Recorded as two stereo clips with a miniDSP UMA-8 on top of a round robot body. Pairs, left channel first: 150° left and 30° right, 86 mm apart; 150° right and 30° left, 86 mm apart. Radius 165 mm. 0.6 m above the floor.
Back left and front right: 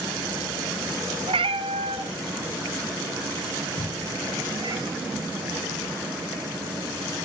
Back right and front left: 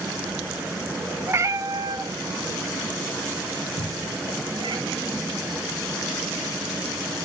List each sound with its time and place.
1.3 s a cat meowing: 30° right, 1.0 m; by 4.8 s 5° left, 2.5 m
3.8 s a cupboard door: 155° right, 1.9 m